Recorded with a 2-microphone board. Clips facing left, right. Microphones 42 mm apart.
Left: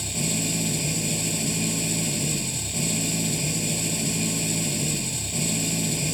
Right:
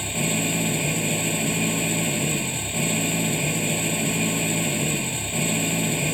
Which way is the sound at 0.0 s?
30° right (ahead or behind).